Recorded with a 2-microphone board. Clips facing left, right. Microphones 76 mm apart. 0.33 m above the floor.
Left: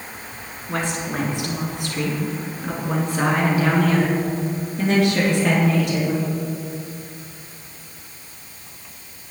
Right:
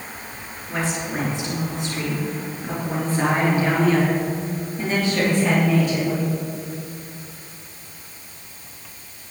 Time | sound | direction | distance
0.7 | a woman speaking | 65° left (ahead or behind) | 3 m